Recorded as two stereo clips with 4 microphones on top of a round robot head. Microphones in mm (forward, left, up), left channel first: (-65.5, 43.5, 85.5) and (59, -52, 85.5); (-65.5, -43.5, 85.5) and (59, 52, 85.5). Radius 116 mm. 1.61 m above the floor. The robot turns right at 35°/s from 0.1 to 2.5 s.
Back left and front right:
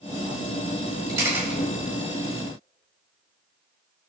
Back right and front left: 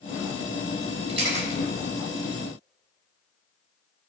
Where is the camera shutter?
30° left, 3 m; by 1.6 s 45° left, 3 m.